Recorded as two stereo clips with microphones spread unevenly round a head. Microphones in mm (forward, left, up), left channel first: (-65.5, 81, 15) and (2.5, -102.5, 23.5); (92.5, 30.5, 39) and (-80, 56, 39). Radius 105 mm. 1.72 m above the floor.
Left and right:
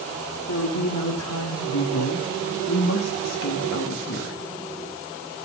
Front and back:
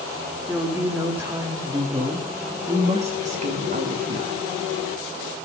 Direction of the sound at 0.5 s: 90° left.